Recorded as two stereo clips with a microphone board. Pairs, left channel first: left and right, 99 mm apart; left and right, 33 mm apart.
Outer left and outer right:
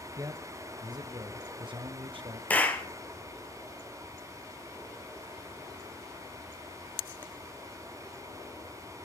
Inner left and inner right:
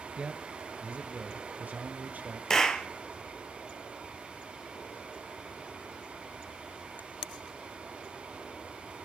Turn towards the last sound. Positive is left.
turn(degrees=15)  # may be behind; listen again after turning